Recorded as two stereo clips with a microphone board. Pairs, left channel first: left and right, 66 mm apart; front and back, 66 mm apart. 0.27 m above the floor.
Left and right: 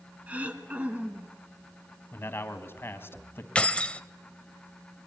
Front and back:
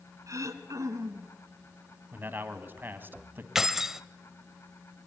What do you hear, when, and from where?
0.3 s throat clearing: 155° right, 1.8 m
2.1 s a man speaking: 130° left, 1.8 m
3.5 s keys jangling: 110° left, 0.7 m